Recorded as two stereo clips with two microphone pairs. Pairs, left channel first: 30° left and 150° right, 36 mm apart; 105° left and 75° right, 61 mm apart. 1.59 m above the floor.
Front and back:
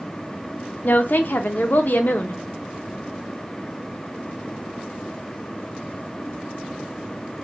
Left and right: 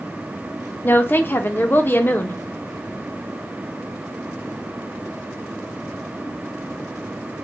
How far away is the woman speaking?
About 0.6 m.